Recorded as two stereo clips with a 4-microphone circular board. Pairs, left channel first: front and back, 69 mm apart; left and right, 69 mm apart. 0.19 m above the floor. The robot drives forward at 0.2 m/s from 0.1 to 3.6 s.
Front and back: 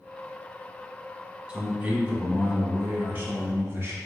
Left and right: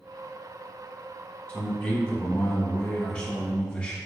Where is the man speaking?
140° left, 1.1 m; by 4.0 s 155° left, 1.3 m.